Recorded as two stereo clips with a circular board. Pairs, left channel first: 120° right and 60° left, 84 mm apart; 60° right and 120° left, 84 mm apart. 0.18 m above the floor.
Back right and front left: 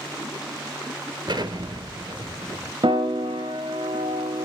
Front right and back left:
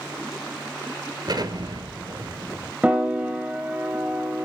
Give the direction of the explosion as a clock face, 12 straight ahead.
9 o'clock.